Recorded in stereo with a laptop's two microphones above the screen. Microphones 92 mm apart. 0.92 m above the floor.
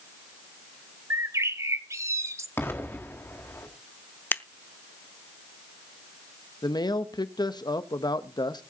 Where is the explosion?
25° left (ahead or behind), 1.6 m.